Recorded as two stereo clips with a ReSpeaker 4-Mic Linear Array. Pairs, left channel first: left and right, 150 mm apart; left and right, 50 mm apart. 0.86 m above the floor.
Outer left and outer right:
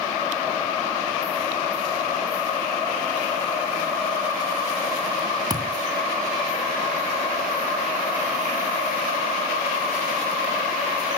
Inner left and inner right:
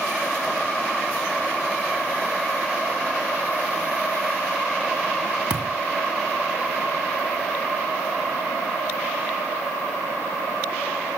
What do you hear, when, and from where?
5.5 s a thud: 25° right (ahead or behind), 2.5 m